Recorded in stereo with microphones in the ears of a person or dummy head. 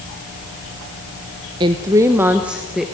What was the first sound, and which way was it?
A woman speaking, 25° right (ahead or behind).